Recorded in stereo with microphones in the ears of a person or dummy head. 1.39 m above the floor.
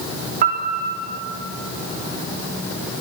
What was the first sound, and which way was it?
A piano, 45° right (ahead or behind).